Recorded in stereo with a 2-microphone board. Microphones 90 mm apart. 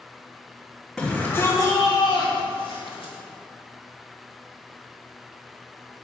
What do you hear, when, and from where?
1.0 s a shout: centre (ahead or behind), 1.3 m; by 3.1 s 85° left, 2.5 m